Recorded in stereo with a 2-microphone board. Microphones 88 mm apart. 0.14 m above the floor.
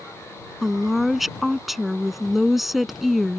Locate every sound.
0.6 s a woman speaking: 5° right (ahead or behind)